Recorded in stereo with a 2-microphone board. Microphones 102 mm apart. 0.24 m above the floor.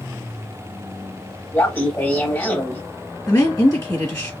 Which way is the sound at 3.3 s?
25° left (ahead or behind).